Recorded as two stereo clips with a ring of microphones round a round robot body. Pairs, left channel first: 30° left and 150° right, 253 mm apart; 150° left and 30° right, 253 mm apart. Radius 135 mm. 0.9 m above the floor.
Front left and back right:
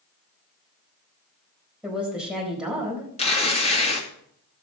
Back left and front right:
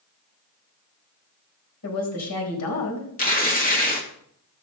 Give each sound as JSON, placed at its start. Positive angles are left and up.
{"t": 1.8, "sound": "a woman speaking", "azimuth_deg": 125, "distance_m": 4.0}
{"t": 3.2, "sound": "tearing paper", "azimuth_deg": 95, "distance_m": 2.0}